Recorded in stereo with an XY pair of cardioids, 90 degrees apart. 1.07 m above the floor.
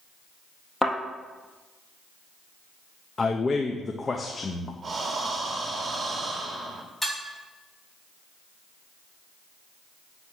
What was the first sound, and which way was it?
A thud, 10° left.